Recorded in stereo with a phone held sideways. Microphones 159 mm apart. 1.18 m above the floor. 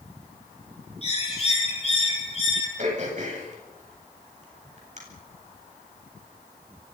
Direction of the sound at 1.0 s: 40° left (ahead or behind).